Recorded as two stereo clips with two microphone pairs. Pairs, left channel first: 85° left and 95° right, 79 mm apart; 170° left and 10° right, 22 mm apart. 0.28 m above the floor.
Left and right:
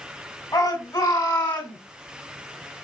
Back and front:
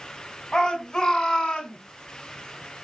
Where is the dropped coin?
I don't hear a dropped coin.